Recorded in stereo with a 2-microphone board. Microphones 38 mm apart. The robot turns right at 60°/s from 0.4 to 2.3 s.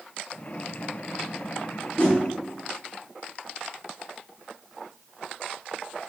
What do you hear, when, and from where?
2.0 s a whoosh: 35° left (ahead or behind), 0.6 m; by 2.2 s 25° left (ahead or behind), 0.6 m